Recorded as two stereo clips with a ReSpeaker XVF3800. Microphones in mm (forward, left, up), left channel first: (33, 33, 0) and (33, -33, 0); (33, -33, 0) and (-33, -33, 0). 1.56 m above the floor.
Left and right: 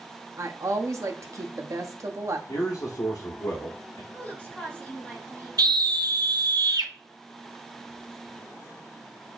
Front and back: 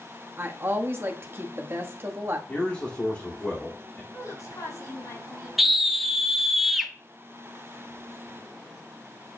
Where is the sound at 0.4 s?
125° right, 0.9 m.